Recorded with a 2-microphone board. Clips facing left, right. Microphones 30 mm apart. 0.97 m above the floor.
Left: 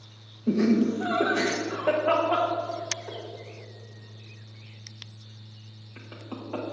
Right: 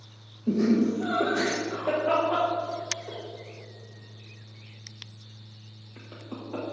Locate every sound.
0.5 s laughter: 60° left (ahead or behind), 1.2 m